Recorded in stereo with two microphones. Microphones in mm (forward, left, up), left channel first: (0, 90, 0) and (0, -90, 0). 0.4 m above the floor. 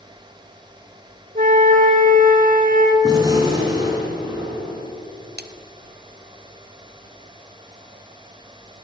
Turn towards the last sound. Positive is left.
turn(degrees=-65)  # may be behind; listen again after turning